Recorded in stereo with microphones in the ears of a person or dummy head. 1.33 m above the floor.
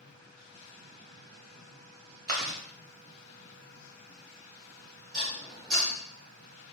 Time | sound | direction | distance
2.3 | chewing | 45° right (ahead or behind) | 0.5 m
5.1 | dishes clattering | 45° right (ahead or behind) | 0.9 m